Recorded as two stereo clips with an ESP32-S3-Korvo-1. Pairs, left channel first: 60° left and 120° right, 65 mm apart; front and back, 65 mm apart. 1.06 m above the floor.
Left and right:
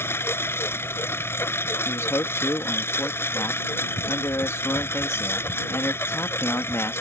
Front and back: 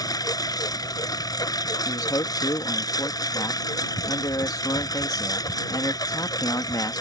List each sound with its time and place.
0.0 s a lawn mower: 10° left
1.9 s a man speaking: 15° left